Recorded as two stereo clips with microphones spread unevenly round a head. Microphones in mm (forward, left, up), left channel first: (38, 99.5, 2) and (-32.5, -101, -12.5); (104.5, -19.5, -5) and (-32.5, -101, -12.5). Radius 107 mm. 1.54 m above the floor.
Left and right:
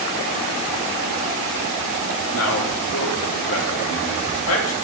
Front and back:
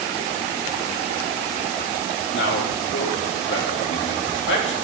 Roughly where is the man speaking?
Ahead left.